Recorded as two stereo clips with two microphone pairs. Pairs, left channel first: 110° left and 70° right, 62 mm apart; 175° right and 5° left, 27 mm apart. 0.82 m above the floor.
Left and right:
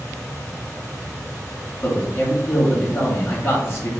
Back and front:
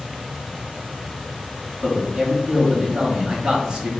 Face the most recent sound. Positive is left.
turn(degrees=65)